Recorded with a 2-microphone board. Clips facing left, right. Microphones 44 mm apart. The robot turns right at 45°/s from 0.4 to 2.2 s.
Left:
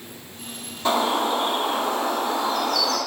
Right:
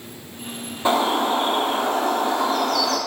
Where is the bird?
160° right, 0.7 m; by 3.0 s 100° right, 0.7 m.